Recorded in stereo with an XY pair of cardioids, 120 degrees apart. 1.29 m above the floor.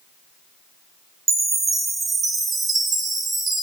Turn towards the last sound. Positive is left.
turn(degrees=-30)